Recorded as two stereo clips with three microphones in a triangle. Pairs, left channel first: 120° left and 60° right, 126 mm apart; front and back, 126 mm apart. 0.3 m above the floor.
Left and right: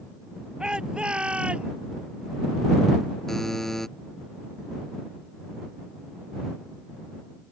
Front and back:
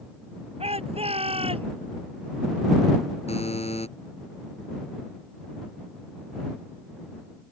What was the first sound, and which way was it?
A shout, 145° right.